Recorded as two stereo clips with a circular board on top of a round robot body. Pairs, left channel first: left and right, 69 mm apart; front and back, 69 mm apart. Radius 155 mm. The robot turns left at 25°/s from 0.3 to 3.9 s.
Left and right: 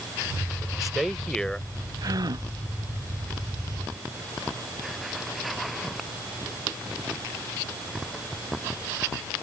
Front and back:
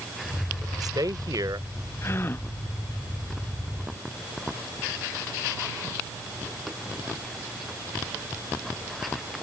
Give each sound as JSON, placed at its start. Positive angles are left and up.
{"t": 0.6, "sound": "a man speaking", "azimuth_deg": -170}
{"t": 2.0, "sound": "a gasp", "azimuth_deg": -55}